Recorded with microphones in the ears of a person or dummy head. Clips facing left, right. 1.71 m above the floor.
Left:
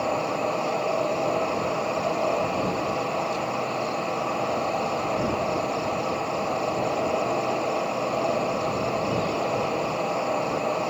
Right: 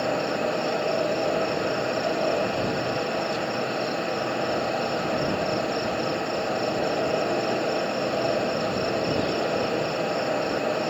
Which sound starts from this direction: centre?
An insect, at 0.0 s.